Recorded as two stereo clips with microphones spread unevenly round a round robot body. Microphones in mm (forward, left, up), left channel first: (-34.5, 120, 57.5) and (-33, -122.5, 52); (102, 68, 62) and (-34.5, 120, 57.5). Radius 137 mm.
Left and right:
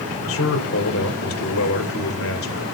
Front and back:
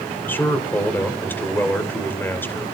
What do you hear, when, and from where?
0.3 s a man speaking: 55° left, 3 m